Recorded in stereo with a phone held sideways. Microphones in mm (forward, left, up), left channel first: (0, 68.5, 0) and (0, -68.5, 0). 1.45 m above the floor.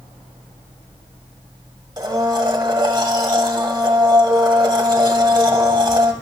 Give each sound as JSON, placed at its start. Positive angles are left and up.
{"t": 2.0, "sound": "a blender", "side_deg": -30, "distance_m": 1.8}